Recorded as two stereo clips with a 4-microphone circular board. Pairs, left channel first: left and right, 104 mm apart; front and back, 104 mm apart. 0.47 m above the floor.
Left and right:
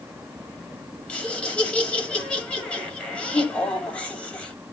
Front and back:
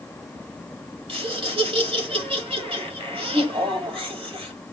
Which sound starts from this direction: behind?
Laughter, at 1.1 s.